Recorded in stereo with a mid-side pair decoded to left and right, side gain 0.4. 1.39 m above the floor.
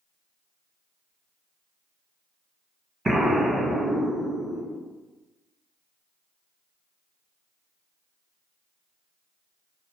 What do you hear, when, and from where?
3.0 s an explosion: 30° right, 1.4 m